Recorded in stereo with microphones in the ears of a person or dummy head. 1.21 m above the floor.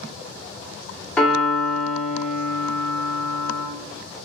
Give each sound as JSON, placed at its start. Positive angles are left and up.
{"t": 1.2, "sound": "a piano", "side_deg": 5, "distance_m": 1.1}